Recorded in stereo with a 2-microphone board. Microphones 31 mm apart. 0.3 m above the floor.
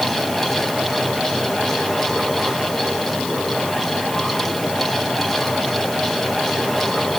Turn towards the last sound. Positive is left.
No sound to turn to.